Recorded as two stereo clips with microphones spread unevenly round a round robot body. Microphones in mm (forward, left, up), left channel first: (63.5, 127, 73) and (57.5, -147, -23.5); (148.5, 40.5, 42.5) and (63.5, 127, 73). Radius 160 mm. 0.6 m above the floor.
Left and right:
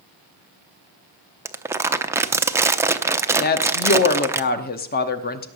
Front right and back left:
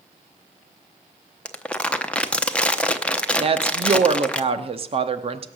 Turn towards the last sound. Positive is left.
turn(degrees=155)